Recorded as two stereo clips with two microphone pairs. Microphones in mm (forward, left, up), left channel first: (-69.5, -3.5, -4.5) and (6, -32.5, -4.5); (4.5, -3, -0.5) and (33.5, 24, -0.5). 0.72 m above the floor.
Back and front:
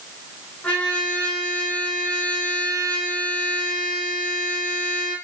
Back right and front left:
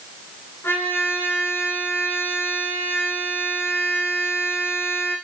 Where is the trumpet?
130° right, 8 m.